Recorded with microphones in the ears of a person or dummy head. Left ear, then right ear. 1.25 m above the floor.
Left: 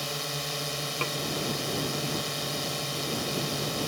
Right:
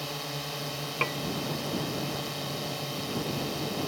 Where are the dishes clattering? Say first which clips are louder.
Right 3 dB; 15° right (ahead or behind).